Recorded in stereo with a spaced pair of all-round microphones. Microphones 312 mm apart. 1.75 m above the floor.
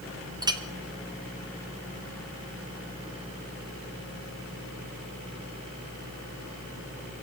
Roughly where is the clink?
Centre.